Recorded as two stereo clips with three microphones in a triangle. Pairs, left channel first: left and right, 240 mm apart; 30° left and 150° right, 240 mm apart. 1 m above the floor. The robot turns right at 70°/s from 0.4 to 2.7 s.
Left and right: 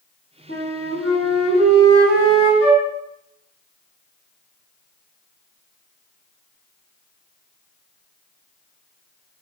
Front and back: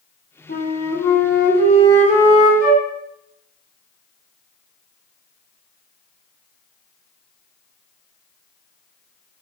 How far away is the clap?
I don't hear a clap.